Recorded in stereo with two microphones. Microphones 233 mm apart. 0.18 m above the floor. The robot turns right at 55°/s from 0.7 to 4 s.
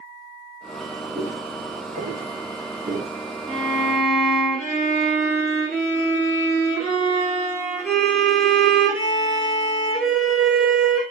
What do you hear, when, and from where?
1.1 s footsteps: 45° right (ahead or behind), 2.5 m; by 3.2 s 25° right (ahead or behind), 1.2 m
3.5 s a violin: 25° right (ahead or behind), 3 m; by 11.0 s centre (ahead or behind), 3 m